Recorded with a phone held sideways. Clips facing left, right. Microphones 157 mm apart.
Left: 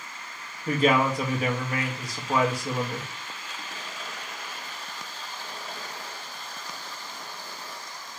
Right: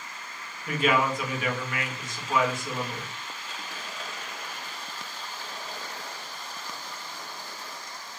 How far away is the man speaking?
About 0.9 m.